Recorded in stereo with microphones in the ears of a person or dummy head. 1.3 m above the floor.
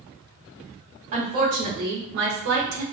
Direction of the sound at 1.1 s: 40° right (ahead or behind).